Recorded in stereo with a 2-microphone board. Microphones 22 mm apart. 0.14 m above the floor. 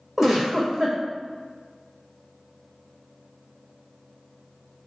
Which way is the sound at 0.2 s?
10° right (ahead or behind).